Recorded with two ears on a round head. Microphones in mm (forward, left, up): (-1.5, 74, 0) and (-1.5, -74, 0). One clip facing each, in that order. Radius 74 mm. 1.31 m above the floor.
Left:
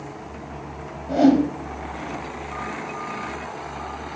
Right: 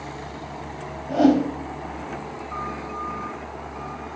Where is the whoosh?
15° left (ahead or behind), 1.1 m.